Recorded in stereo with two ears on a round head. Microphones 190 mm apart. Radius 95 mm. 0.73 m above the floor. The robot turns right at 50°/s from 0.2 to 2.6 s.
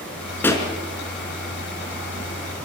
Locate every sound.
0.4 s a pop: 10° left (ahead or behind), 3.5 m; by 0.7 s 20° left (ahead or behind), 3.5 m